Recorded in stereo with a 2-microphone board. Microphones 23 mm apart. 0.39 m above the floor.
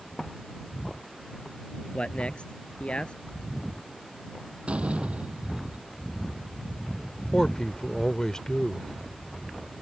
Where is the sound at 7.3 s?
30° left (ahead or behind).